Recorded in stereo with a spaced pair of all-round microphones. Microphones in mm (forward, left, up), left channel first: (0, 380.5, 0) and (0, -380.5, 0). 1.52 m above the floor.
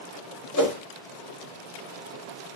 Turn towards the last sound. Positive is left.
turn(degrees=25)  # may be behind; listen again after turning